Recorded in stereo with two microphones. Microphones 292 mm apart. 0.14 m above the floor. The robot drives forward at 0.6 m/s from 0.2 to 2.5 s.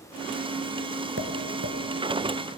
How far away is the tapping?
About 1.5 m.